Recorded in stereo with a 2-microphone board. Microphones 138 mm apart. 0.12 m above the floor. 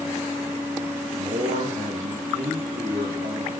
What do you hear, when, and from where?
1.2 s a man speaking: 65° right (ahead or behind), 6 m